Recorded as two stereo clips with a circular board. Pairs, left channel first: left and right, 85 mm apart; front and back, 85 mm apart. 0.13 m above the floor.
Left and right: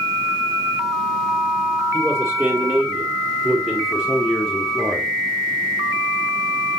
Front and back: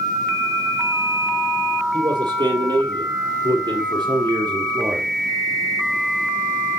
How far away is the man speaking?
About 3.5 m.